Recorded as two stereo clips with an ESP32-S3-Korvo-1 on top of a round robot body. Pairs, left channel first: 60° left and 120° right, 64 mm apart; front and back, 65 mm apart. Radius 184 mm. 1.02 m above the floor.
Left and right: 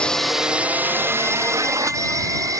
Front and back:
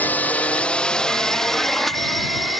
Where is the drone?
5° left; by 2.6 s 90° right.